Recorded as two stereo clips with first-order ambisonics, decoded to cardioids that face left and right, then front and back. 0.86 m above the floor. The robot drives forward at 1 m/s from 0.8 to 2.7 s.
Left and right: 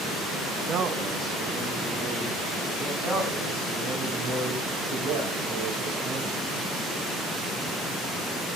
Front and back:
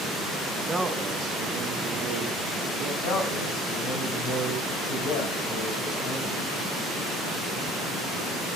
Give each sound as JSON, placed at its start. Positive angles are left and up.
{"t": 0.7, "sound": "a man speaking", "azimuth_deg": -105, "distance_m": 0.6}
{"t": 3.0, "sound": "a man speaking", "azimuth_deg": -15, "distance_m": 5.0}